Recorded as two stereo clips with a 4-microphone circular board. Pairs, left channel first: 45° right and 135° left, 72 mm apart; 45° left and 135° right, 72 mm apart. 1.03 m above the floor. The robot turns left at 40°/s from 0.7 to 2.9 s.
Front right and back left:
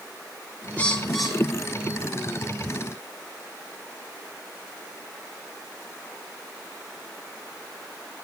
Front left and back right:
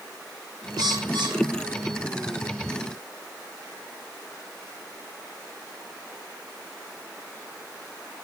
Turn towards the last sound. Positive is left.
turn(degrees=160)